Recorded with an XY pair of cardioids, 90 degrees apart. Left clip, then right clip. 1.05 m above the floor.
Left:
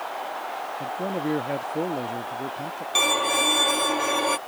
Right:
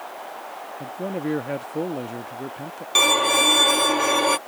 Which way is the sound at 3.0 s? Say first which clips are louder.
Right 4 dB; 30° right.